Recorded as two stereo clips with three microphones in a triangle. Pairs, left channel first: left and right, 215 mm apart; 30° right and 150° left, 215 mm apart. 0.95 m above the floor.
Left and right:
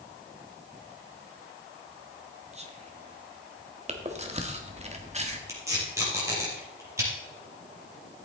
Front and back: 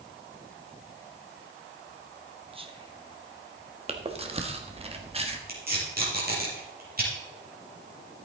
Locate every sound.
2.5 s whispering: 145° right, 1.6 m
3.9 s chewing: 145° right, 1.4 m
5.5 s tape being pulled: 165° right, 5 m